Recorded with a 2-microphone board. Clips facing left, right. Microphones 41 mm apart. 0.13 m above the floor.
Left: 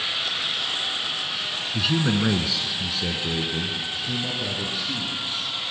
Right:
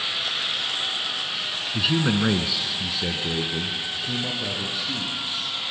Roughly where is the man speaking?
Centre.